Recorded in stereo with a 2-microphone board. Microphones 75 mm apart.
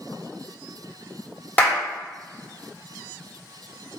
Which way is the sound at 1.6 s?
20° left (ahead or behind).